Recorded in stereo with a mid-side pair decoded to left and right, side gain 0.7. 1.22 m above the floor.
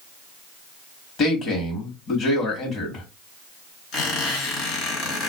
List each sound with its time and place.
1.2 s a man speaking: 45° left, 1.2 m
3.9 s a squeak: 50° left, 1.6 m